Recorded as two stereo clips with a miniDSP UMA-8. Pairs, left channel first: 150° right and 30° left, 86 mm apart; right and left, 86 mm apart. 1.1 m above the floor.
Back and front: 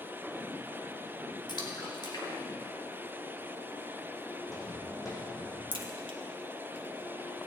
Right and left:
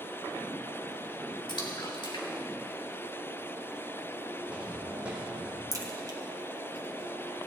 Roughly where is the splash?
Behind right.